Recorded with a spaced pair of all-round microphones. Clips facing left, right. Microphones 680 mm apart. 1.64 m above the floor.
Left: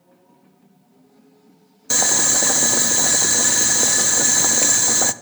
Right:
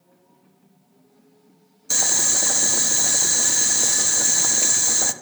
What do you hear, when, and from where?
1.9 s boiling: 80° left, 0.5 m